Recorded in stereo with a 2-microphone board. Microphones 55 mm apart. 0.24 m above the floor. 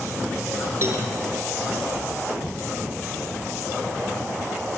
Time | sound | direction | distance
0.8 | a cowbell | 50° right (ahead or behind) | 3.5 m